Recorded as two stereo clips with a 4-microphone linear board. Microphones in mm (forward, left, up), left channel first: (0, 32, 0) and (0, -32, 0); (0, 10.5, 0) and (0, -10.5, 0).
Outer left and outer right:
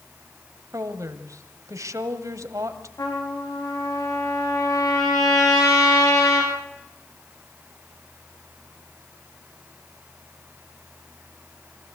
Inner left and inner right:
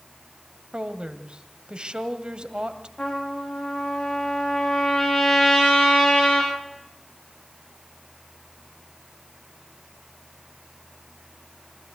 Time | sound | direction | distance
0.7 | a woman speaking | 60° right (ahead or behind) | 1.7 m
3.0 | a trumpet | 70° left (ahead or behind) | 7 m